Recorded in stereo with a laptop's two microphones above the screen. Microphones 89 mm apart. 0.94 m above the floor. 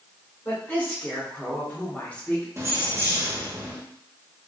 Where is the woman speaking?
25° left (ahead or behind), 1.8 m; by 2.5 s 15° left (ahead or behind), 0.8 m.